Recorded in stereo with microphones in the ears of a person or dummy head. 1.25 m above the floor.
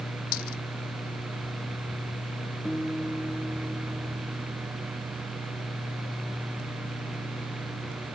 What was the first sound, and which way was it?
A dropped coin, 55° left (ahead or behind).